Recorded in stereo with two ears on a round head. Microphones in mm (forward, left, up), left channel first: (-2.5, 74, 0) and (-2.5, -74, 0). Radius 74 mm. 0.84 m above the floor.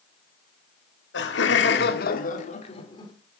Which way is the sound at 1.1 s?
75° left (ahead or behind).